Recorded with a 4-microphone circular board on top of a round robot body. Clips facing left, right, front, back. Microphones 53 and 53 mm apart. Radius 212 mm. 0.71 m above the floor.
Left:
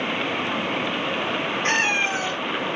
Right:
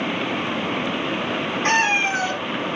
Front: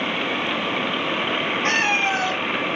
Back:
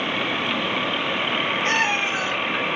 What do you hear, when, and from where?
1.6 s a cat meowing: 40° right, 2 m